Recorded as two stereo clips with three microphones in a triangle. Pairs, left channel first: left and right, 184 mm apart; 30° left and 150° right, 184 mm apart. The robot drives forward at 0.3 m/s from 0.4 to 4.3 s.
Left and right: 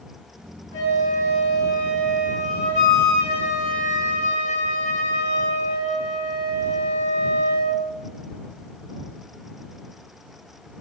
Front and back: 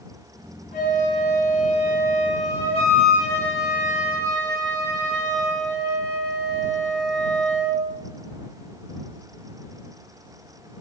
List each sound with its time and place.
0.7 s a flute: 80° left, 8 m; by 7.8 s 90° left, 8 m